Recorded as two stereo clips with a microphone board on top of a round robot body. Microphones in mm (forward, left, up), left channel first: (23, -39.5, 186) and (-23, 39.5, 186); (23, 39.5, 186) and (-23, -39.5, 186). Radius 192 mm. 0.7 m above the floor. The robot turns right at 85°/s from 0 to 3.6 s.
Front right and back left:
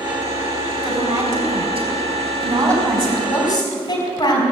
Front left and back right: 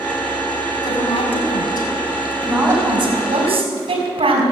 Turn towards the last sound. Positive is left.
turn(degrees=-110)